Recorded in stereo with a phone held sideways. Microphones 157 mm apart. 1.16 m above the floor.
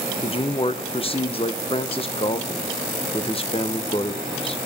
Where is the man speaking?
35° left (ahead or behind), 0.9 m.